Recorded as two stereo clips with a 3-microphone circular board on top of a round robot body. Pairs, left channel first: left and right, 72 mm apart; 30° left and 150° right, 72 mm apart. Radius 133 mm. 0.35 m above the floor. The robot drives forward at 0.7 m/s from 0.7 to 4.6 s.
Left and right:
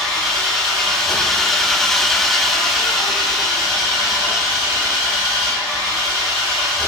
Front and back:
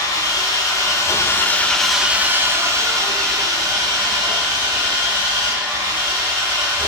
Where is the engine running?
Straight ahead, 1.0 m; by 6.9 s straight behind, 2 m.